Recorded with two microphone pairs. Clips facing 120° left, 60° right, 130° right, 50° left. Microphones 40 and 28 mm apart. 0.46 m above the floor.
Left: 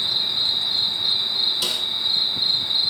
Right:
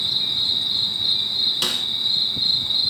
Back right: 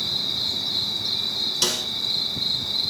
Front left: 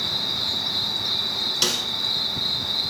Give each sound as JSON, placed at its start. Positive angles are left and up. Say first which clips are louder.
{"t": 0.0, "sound": "an insect", "louder": "even, even", "azimuth_deg": -25, "distance_m": 4.5}
{"t": 1.6, "sound": "a snare drum", "louder": "right 1 dB, front left 1 dB", "azimuth_deg": -30, "distance_m": 1.5}